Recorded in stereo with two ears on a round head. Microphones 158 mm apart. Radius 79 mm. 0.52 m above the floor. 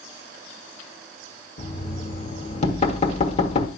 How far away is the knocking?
About 1.3 m.